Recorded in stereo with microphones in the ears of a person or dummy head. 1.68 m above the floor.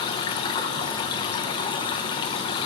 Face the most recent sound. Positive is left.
turn(degrees=30)  # may be behind; listen again after turning